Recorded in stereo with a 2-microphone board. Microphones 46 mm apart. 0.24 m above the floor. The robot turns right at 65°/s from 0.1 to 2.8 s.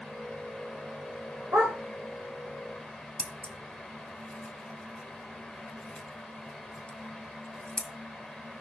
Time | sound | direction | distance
1.5 | a dog barking | 65° right (ahead or behind) | 7.5 m
3.2 | scissors | 25° left (ahead or behind) | 1.3 m